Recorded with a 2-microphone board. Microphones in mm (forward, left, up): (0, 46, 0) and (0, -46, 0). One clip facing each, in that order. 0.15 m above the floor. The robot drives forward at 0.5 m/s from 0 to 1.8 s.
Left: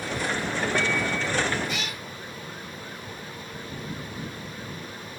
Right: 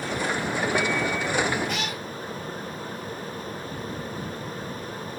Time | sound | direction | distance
1.7 | a cat meowing | 60° right (ahead or behind) | 5.5 m